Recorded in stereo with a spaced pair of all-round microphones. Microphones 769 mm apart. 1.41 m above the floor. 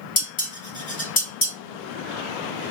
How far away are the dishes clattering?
About 1.8 m.